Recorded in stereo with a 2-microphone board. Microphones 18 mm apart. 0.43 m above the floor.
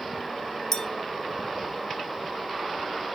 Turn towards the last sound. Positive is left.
turn(degrees=30)  # may be behind; listen again after turning